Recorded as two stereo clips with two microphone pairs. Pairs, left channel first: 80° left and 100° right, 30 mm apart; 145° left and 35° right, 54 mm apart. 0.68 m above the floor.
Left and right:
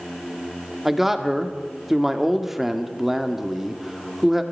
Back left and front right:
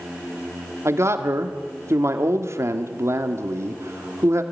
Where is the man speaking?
25° right, 1.7 m.